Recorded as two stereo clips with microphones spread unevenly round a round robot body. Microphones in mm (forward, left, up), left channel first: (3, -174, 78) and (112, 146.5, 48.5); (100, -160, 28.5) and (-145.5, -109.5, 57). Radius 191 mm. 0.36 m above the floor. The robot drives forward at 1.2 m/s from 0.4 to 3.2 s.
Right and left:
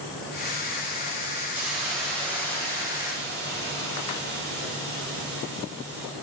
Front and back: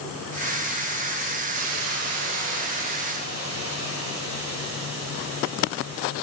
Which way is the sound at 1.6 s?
150° left.